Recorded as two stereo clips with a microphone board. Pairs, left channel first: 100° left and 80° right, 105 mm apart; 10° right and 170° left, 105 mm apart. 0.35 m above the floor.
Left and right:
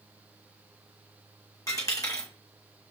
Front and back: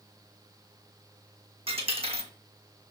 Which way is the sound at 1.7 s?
155° left.